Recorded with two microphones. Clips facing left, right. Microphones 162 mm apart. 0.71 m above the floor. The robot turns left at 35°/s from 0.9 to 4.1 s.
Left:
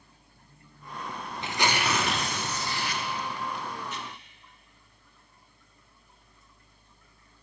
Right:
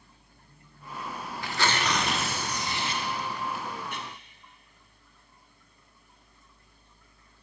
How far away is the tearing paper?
About 0.6 m.